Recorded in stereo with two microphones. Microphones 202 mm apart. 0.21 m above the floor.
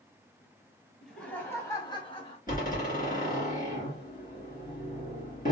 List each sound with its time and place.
1.0 s laughter: centre (ahead or behind), 1.3 m; by 2.4 s 30° left (ahead or behind), 1.4 m
2.5 s a door slam: 45° left (ahead or behind), 2 m